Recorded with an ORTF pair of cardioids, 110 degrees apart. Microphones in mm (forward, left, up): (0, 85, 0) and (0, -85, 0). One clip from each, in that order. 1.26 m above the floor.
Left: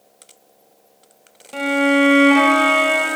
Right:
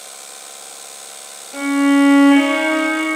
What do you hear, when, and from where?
1.5 s a violin: 20° left, 1.5 m